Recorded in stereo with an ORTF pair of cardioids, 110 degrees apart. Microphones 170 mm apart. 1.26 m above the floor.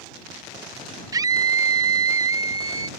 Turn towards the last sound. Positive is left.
turn(degrees=-20)